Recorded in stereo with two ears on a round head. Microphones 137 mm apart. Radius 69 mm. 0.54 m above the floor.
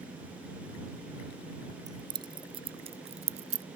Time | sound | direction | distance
1.9 | keys jangling | 25° right (ahead or behind) | ?